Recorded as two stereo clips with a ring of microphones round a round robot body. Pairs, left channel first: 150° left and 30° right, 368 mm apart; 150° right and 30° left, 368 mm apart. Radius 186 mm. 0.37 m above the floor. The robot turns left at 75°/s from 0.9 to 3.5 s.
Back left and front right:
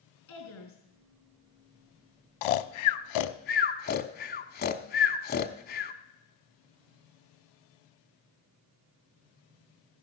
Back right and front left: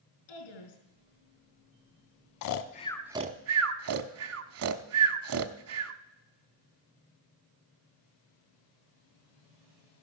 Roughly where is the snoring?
Behind.